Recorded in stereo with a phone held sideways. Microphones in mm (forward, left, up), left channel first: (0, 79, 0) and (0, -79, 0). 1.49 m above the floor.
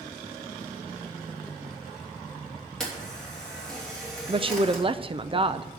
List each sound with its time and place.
2.8 s a camera shutter: 5° left (ahead or behind), 3 m
4.3 s a woman speaking: 35° right (ahead or behind), 0.5 m